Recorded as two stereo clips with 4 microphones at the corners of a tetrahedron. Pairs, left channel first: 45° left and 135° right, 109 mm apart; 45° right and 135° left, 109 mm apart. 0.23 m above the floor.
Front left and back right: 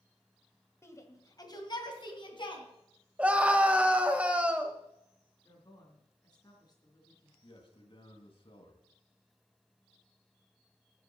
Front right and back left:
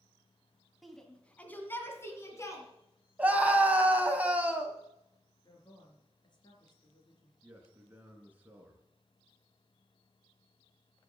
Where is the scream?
175° left, 1.2 m.